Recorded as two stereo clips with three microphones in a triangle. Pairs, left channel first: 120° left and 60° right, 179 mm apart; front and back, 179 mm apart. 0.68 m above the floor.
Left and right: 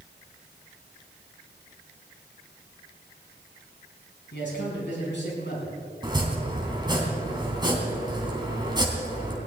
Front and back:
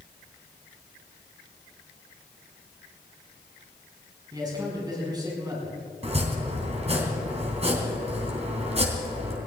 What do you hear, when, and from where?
4.3 s a man speaking: 115° left, 5.5 m
6.0 s chopping: 125° right, 3 m